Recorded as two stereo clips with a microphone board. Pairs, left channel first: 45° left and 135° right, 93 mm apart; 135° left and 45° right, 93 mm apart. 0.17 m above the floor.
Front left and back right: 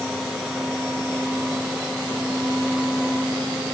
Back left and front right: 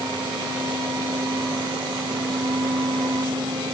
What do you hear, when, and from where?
Only background noise.